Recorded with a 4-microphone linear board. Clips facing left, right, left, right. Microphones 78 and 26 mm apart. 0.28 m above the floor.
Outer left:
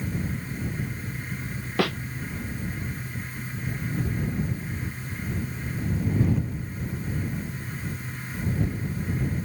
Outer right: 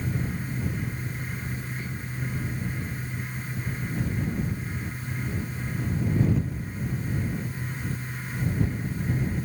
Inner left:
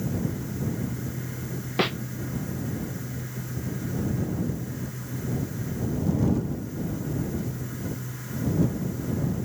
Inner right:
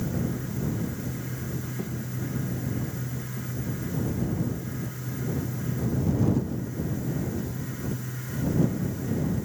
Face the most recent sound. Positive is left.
turn(degrees=90)